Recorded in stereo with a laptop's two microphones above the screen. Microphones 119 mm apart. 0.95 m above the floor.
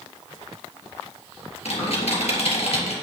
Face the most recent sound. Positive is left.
turn(degrees=65)  # may be behind; listen again after turning